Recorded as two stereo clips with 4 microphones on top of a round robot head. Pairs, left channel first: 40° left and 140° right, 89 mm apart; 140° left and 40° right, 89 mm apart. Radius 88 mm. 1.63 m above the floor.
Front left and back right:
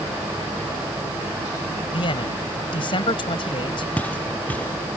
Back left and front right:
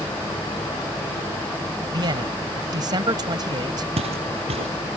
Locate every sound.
1.9 s a man speaking: 5° left
4.0 s footsteps: 35° right